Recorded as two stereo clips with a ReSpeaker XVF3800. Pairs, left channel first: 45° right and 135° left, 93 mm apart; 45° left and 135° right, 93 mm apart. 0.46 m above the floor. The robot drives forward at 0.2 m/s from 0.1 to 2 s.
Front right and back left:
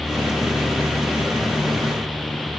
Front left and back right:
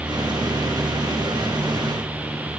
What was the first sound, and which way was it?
Only background noise.